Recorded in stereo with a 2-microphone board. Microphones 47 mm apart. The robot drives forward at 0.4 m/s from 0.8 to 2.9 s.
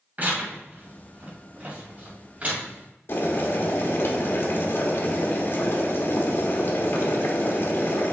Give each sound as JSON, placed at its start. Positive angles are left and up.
{"t": 0.2, "sound": "tearing paper", "side_deg": -40, "distance_m": 1.8}
{"t": 3.1, "sound": "boiling", "side_deg": 45, "distance_m": 1.2}